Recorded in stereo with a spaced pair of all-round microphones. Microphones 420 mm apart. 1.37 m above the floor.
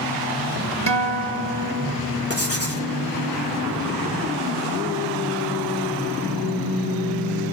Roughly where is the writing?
Left.